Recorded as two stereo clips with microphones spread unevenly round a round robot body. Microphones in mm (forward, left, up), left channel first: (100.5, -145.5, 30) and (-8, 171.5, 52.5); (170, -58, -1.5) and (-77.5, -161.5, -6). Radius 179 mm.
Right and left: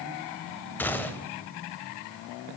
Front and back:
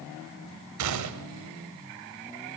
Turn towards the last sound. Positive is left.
turn(degrees=-155)